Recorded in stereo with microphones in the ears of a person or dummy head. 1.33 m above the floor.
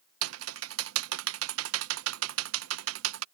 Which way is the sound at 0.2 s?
85° right.